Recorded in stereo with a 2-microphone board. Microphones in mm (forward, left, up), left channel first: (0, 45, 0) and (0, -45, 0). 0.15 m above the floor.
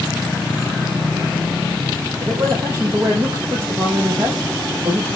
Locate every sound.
2.2 s a man speaking: 35° right (ahead or behind), 5 m